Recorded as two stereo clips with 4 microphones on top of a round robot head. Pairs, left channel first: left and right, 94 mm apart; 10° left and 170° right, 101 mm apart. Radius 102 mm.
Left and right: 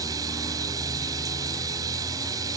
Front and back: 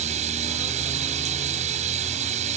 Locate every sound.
0.0 s running water: 155° right